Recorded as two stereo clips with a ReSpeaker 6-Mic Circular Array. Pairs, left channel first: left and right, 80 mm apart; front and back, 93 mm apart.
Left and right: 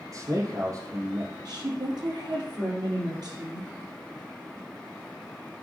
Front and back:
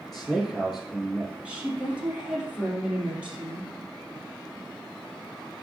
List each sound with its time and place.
0.1 s a man speaking: 85° right, 1.6 m
1.4 s a woman speaking: 105° right, 3 m